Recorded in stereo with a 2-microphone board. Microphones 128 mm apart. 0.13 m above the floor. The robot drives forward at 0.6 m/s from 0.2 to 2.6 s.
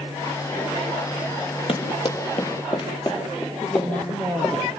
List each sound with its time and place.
1.7 s running footsteps: 50° left (ahead or behind), 4 m; by 4.6 s 25° left (ahead or behind), 5.5 m
3.6 s a woman speaking: 10° left (ahead or behind), 4 m